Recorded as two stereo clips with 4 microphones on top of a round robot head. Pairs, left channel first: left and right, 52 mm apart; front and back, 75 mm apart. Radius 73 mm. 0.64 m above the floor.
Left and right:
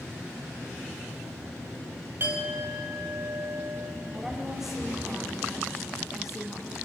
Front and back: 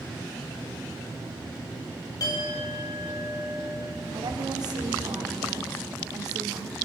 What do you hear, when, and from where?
2.2 s a clink: 40° right, 3 m
4.1 s a woman speaking: 175° right, 2 m